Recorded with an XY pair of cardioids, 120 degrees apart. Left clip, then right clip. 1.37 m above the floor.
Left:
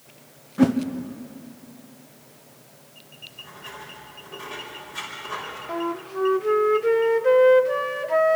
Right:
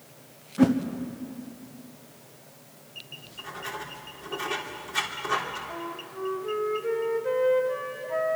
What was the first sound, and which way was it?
A whoosh, 10° left.